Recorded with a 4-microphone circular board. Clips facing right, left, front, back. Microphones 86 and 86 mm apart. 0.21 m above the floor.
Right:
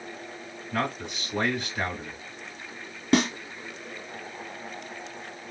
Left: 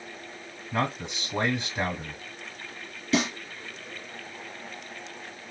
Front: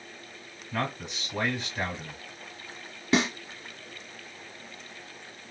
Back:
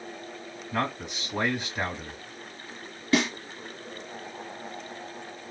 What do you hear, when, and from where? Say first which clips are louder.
0.7 s a man speaking: left 1 dB, back 2 dB; 115° left, 1.4 m
3.1 s a snare drum: right 3 dB, back 1 dB; 60° right, 1.3 m